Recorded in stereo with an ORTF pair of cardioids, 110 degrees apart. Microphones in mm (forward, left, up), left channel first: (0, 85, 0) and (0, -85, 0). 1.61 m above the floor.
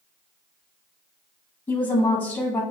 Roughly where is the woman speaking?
Ahead left.